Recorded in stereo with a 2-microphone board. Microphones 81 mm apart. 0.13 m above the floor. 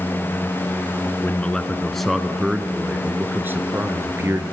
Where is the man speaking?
15° left (ahead or behind), 1.4 m; by 4.4 s 35° right (ahead or behind), 2 m.